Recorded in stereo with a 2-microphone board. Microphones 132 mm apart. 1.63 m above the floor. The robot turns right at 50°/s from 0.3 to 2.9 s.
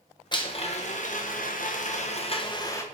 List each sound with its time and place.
0.3 s a blender: 35° left, 1.2 m; by 2.8 s 160° left, 1.2 m